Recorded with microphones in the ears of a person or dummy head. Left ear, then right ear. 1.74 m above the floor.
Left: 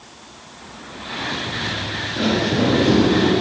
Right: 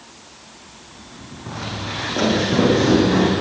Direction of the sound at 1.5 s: 40° right (ahead or behind).